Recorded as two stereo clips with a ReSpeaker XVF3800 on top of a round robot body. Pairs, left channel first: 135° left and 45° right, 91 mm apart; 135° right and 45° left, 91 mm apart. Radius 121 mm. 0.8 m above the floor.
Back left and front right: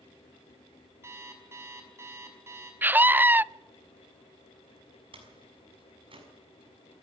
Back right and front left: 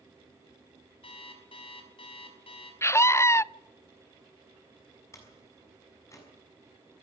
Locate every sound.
1.0 s an alarm clock: 110° right, 5.5 m
2.8 s a scream: 100° right, 0.6 m
5.1 s a door slam: 75° right, 6.5 m